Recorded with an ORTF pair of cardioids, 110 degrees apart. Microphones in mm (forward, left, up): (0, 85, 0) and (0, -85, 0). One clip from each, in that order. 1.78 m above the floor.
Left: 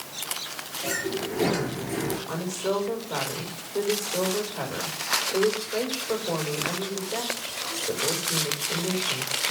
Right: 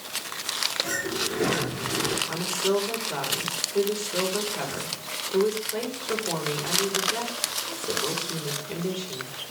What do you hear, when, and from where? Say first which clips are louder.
0.8 s a sliding door: right 1 dB; 5° left, 4.5 m
2.3 s a woman speaking: right 3 dB; 30° right, 5.5 m